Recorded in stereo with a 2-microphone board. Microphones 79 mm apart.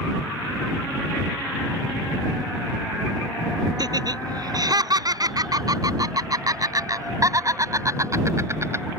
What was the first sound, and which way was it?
Laughter, 55° right (ahead or behind).